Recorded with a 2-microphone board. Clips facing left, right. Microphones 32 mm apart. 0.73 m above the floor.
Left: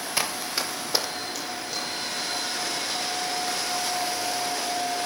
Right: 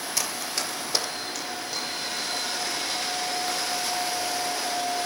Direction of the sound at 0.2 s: 30° left (ahead or behind).